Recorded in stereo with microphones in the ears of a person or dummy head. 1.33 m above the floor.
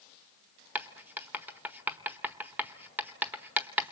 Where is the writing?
10° right (ahead or behind), 1.1 m.